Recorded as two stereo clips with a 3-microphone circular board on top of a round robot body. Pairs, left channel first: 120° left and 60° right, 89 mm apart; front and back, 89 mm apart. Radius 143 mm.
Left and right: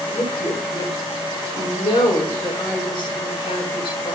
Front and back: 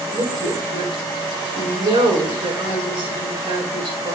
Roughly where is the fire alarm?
I don't hear a fire alarm.